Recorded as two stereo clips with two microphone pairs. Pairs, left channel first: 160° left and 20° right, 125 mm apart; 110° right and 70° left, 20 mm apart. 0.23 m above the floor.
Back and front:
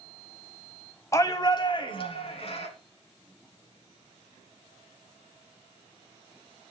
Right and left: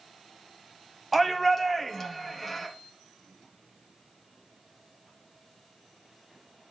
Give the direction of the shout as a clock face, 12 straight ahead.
7 o'clock.